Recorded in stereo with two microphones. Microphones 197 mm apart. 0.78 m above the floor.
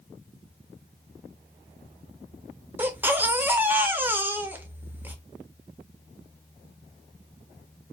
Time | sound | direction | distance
2.8 | a baby crying | 10° right (ahead or behind) | 0.5 m